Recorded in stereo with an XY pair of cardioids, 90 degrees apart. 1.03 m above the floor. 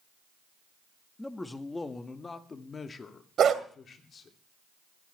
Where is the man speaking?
15° left, 1.7 m; by 4.4 s 60° left, 3 m.